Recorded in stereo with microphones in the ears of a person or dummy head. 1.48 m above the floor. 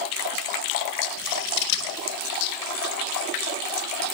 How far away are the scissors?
About 4 m.